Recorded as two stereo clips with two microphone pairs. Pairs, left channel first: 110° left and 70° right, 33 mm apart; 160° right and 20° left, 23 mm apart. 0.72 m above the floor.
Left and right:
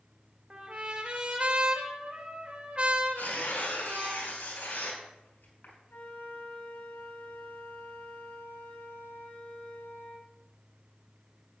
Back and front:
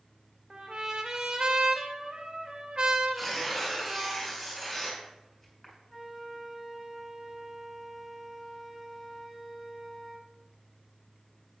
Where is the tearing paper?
120° left, 4.5 m.